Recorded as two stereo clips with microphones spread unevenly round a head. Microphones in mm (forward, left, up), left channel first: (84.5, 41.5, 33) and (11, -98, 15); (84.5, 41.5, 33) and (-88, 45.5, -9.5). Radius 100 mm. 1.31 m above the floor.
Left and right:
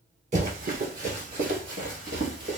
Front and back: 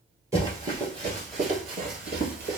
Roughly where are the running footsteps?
Right.